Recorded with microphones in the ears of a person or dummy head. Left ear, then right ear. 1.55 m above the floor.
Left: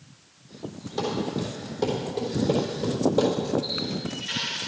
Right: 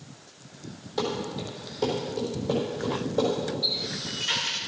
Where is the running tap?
25° right (ahead or behind), 1.9 m.